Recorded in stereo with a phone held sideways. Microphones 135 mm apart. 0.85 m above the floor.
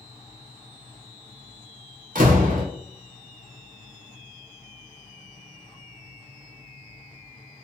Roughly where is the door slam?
Right.